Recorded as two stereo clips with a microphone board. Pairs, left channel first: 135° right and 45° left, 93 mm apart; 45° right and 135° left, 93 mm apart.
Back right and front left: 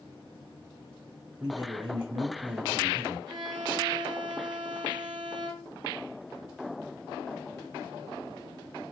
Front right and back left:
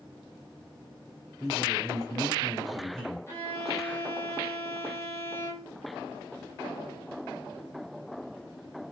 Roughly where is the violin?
Ahead.